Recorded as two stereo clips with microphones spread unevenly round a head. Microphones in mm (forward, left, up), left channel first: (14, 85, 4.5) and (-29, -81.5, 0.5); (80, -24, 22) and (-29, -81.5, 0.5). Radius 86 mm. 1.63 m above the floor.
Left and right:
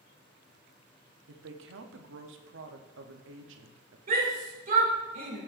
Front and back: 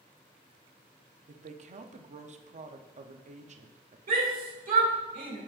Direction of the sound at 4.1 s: 150° right.